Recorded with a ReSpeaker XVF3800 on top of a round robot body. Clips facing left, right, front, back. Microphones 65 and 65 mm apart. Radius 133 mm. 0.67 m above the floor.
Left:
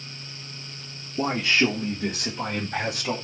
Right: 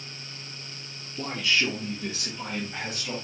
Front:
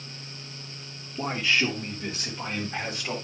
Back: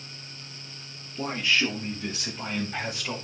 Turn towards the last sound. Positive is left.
turn(degrees=90)